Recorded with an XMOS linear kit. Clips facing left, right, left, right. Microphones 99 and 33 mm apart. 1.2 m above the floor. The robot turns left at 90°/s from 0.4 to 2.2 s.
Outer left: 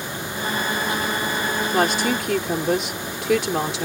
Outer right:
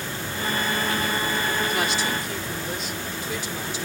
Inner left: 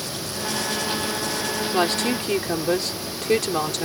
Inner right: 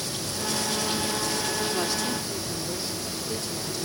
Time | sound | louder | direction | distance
1.7 | a woman speaking | outer left 5 dB, inner left 6 dB | 145° left | ?